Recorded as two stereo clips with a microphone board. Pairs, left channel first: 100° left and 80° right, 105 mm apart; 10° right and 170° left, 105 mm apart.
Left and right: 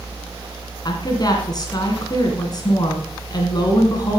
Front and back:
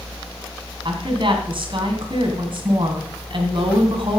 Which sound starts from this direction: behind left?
A woman speaking, at 0.8 s.